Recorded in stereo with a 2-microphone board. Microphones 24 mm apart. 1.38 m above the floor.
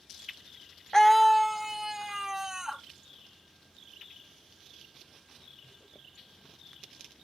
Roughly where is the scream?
Left.